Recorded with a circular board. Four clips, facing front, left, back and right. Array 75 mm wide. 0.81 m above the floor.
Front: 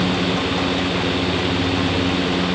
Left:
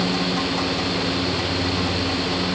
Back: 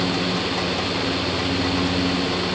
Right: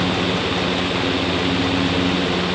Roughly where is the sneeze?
No sneeze in this recording.